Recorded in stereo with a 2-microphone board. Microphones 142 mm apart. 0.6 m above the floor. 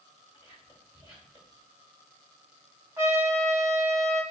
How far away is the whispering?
About 2.5 m.